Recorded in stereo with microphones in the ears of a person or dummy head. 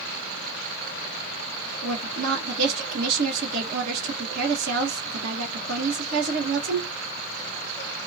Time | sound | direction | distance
1.8 | a woman speaking | 60° right (ahead or behind) | 1.4 m